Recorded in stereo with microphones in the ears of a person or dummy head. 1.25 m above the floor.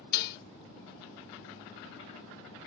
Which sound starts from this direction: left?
Dishes clattering, at 0.1 s.